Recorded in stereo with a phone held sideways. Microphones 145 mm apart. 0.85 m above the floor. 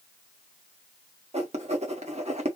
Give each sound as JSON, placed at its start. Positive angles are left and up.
{"t": 1.3, "sound": "writing", "side_deg": -55, "distance_m": 1.3}